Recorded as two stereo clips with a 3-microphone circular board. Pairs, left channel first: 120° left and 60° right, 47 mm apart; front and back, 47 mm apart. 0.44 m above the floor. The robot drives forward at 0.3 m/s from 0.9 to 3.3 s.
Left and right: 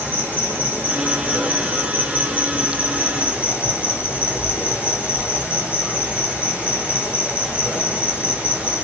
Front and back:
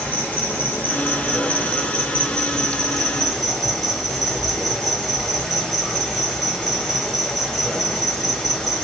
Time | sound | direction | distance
0.0 | an insect | 25° right | 1.3 m